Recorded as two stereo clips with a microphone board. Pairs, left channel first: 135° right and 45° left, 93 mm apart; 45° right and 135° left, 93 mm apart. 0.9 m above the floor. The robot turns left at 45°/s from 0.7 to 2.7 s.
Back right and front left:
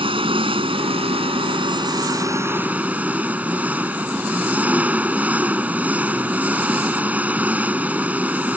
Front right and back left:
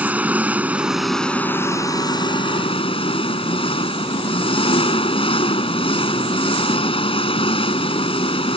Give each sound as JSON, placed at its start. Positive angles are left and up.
{"t": 0.0, "sound": "an engine running", "azimuth_deg": 60}